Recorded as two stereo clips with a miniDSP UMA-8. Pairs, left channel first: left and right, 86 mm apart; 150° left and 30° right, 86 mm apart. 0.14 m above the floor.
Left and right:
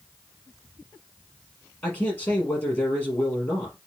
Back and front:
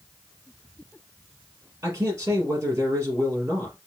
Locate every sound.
1.8 s a man speaking: 25° left, 4 m